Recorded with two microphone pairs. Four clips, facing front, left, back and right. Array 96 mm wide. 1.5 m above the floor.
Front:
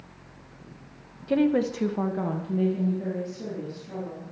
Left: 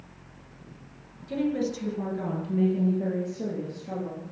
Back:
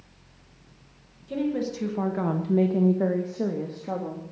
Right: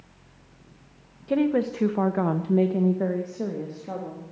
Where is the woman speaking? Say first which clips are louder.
Right 5 dB, front 5 dB; 50° right, 1.8 m; by 4.2 s 165° right, 3.5 m.